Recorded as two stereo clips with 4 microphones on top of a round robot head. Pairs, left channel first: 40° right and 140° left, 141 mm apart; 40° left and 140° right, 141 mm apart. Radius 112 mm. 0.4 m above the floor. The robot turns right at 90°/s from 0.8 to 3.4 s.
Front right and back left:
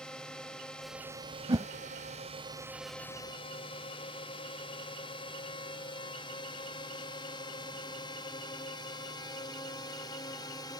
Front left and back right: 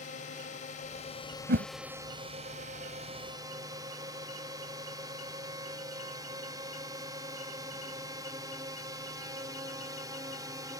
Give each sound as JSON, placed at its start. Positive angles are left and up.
{"t": 0.0, "sound": "a drone", "azimuth_deg": 45}
{"t": 1.5, "sound": "a whoosh", "azimuth_deg": -160}